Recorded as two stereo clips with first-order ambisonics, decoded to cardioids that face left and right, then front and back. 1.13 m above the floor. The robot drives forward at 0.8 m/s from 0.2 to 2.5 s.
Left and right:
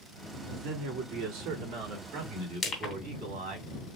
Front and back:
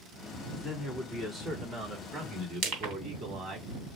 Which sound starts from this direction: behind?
Crushing, at 2.6 s.